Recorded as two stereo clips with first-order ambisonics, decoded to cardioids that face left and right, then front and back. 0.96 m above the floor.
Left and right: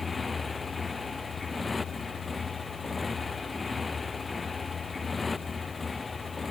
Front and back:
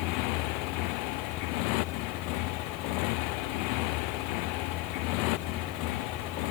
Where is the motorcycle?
10° left.